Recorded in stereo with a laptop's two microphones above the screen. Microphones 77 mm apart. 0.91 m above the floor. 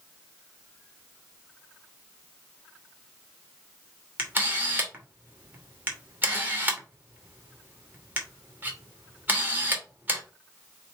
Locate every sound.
4.2 s a camera shutter: 25° right (ahead or behind), 1.3 m